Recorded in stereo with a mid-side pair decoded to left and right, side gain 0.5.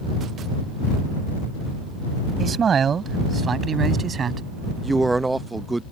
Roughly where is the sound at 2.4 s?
Ahead right.